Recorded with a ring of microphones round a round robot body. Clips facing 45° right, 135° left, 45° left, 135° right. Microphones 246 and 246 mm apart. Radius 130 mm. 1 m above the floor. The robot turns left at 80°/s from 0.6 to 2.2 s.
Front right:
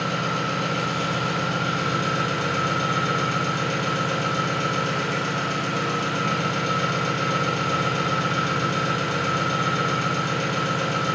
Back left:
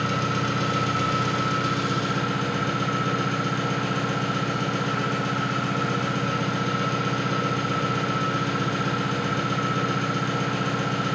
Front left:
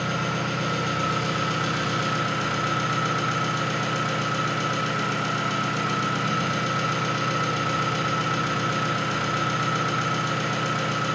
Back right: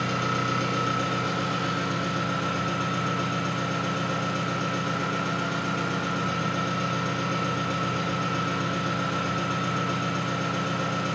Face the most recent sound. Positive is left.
turn(degrees=35)